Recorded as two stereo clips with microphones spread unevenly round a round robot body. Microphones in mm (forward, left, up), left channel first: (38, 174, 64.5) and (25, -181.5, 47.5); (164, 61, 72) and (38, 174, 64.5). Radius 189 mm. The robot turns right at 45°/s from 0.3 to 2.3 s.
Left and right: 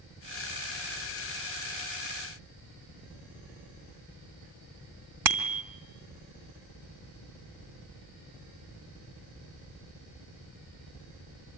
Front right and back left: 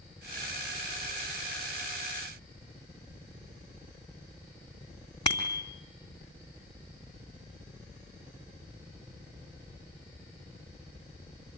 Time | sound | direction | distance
5.2 | a bicycle bell | 115° right | 2.5 m